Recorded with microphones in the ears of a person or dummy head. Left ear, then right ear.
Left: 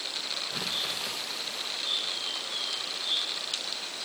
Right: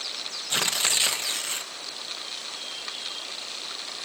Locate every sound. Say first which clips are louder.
0.5 s tearing paper: right 11 dB; 45° right (ahead or behind), 0.8 m